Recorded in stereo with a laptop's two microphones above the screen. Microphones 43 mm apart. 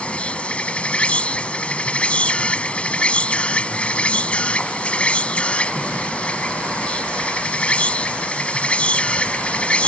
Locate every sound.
0.0 s an insect: 30° left (ahead or behind)